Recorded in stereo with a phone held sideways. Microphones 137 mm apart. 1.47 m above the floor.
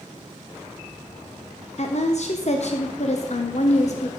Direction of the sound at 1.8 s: 55° left (ahead or behind).